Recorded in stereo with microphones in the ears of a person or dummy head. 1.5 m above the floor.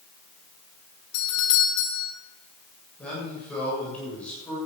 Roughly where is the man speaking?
Centre.